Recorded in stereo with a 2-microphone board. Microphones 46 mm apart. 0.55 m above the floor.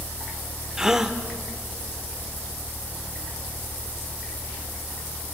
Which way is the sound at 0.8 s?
10° right (ahead or behind).